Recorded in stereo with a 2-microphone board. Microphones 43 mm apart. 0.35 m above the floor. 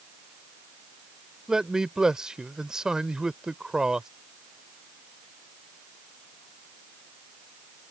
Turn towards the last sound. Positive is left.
turn(degrees=-15)  # may be behind; listen again after turning